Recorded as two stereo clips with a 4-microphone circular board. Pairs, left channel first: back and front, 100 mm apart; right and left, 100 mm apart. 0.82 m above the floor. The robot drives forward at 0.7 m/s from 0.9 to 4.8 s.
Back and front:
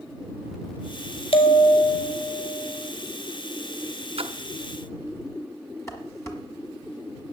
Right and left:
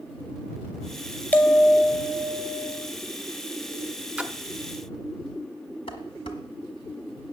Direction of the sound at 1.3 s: 165° right.